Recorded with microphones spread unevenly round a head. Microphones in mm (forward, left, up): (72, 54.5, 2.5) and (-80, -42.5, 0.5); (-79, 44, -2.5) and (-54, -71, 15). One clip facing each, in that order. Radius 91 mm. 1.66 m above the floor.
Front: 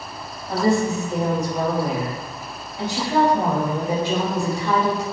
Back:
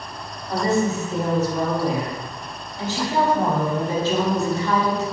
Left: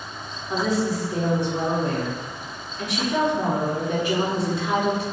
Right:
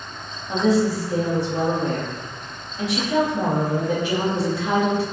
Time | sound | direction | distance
0.5 | a woman speaking | 45° right | 1.6 m